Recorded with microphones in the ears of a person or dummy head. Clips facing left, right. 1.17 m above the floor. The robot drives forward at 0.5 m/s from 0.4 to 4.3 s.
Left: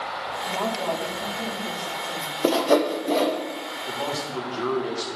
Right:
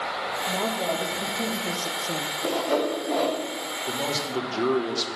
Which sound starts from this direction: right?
A man speaking, at 3.9 s.